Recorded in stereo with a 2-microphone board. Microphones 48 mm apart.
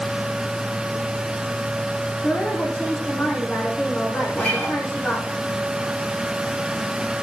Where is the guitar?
25° left (ahead or behind), 5 m.